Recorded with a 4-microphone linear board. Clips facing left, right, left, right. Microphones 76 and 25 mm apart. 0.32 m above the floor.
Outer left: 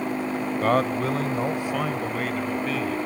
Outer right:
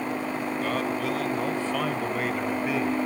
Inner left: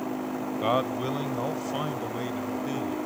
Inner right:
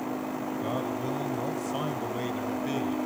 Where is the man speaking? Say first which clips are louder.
Outer left 7 dB, inner left 7 dB; 45° left (ahead or behind), 1.2 m; by 3.0 s 15° right (ahead or behind), 1.6 m.